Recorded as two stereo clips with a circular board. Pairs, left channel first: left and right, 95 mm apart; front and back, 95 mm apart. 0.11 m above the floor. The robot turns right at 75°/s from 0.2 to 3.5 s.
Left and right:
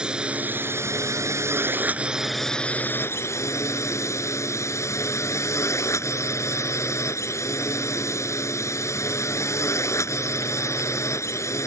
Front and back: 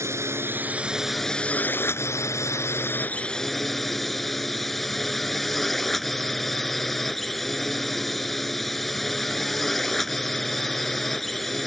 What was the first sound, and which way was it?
A drone, 160° right.